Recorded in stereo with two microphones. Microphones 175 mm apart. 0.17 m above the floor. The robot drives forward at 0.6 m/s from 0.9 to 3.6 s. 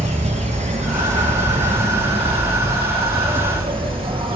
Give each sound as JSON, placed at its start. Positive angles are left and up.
{"t": 0.0, "sound": "an insect", "side_deg": -40, "distance_m": 4.5}